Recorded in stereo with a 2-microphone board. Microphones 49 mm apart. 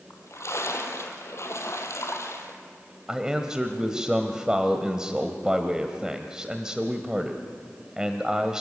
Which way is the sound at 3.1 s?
15° right (ahead or behind).